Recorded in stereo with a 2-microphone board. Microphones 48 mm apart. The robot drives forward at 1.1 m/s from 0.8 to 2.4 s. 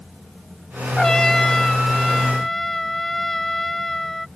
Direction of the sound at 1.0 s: 15° left (ahead or behind).